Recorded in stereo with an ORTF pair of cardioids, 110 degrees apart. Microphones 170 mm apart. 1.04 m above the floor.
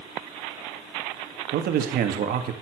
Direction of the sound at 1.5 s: 65° right.